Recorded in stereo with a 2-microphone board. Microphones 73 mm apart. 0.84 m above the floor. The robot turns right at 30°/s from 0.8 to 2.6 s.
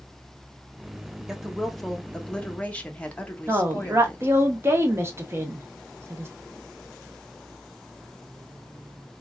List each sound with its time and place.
1.3 s a woman speaking: 10° right, 0.7 m; by 4.3 s 30° left, 0.7 m
3.5 s a woman speaking: 35° right (ahead or behind), 0.8 m